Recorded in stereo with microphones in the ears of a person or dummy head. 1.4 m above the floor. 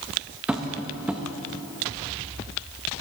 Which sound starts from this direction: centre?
Tapping, at 0.5 s.